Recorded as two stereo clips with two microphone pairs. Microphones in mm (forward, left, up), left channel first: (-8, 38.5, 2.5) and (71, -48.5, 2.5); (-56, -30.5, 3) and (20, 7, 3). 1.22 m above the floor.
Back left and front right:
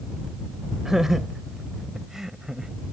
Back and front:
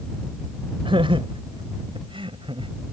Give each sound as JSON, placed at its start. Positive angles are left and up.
{"t": 0.8, "sound": "laughter", "azimuth_deg": 40}